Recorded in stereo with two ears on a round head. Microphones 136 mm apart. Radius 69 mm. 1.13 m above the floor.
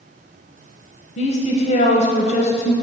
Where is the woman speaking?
40° left (ahead or behind), 0.7 m.